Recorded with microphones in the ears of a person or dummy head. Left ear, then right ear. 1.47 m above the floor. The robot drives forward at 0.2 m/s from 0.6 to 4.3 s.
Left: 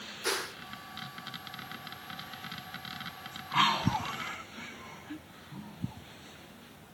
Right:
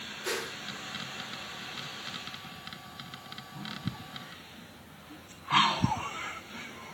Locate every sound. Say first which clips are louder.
0.2 s a whoosh: left 2 dB; 70° left (ahead or behind), 0.7 m